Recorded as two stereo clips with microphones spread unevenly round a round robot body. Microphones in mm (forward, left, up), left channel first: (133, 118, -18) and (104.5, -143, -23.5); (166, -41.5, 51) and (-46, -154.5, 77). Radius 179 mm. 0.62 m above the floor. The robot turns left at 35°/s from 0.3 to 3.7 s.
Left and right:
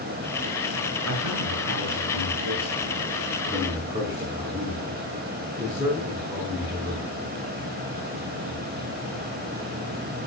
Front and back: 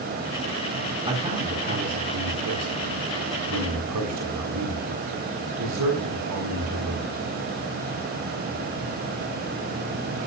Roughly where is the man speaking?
Right.